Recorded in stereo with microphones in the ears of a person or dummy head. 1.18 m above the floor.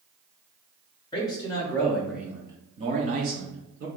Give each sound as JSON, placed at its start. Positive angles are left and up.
{"t": 1.1, "sound": "a man speaking", "side_deg": 20, "distance_m": 1.0}